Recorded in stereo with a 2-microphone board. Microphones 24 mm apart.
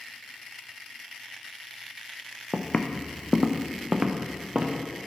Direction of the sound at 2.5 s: 50° left (ahead or behind).